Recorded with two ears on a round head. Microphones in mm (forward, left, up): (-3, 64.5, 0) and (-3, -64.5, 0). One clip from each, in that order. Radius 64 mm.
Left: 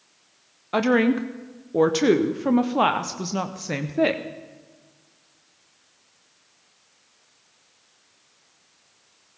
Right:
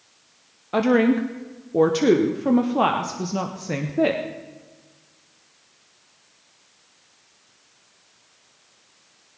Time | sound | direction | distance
0.7 | a woman speaking | 30° left (ahead or behind) | 0.7 m